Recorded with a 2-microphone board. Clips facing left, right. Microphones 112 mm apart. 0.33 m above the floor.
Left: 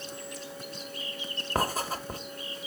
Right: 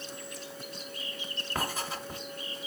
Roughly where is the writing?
Left.